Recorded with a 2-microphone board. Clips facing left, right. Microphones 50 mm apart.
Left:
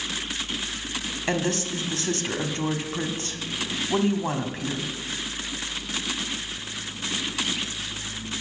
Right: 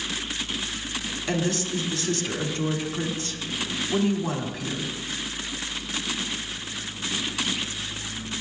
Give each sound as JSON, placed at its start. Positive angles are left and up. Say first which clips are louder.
{"t": 1.3, "sound": "a woman speaking", "louder": "even", "side_deg": 35, "distance_m": 1.4}